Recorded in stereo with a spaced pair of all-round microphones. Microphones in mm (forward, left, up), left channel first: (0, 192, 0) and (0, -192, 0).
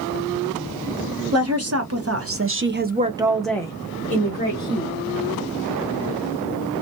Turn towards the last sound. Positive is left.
turn(degrees=25)  # may be behind; listen again after turning